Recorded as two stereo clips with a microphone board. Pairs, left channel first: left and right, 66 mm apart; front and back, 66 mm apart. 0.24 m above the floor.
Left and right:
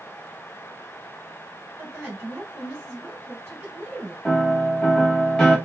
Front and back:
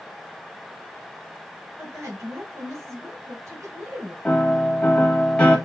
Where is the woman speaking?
145° right, 2 m.